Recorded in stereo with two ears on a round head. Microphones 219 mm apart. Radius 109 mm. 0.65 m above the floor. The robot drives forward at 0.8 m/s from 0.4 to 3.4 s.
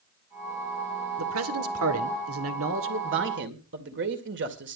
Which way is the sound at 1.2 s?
65° right (ahead or behind).